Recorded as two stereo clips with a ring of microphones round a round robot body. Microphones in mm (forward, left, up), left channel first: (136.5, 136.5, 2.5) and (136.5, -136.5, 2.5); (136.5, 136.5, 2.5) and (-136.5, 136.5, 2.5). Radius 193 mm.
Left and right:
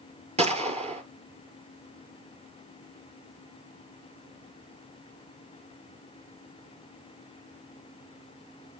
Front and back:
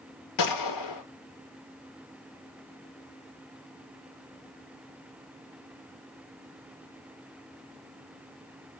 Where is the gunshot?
20° right, 1.4 m.